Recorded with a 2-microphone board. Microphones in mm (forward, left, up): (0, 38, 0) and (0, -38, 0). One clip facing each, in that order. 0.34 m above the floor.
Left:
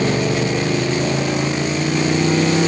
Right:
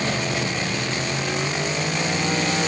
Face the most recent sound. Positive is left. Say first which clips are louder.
# left 7 dB
turn(degrees=75)  # may be behind; listen again after turning